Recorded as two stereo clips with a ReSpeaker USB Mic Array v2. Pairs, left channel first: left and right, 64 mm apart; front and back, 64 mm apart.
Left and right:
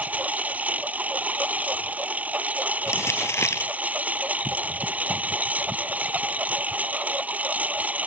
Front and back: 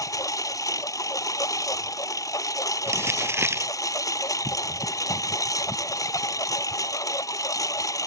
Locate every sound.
0.0 s a lawn mower: 25° right
2.9 s crumpling: 135° left